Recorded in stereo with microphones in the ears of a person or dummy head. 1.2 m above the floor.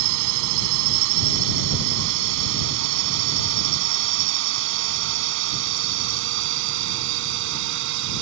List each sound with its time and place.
0.0 s a drone: 75° right (ahead or behind); by 8.2 s 70° right (ahead or behind)